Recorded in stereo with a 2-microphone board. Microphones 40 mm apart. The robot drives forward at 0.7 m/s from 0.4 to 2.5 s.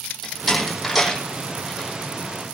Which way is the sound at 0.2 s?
5° left (ahead or behind).